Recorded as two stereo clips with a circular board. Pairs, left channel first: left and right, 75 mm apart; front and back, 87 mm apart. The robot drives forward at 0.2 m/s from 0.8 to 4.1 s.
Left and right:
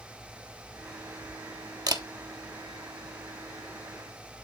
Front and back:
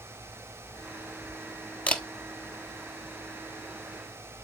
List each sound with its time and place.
1.9 s a camera shutter: 70° right, 1.0 m; by 2.0 s 75° right, 1.0 m